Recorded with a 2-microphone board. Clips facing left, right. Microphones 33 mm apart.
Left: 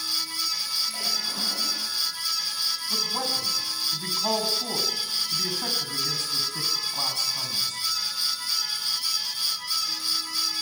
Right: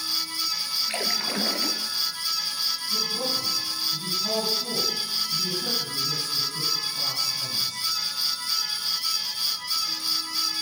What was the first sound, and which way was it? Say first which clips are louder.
A splash: right 2 dB; 55° right (ahead or behind).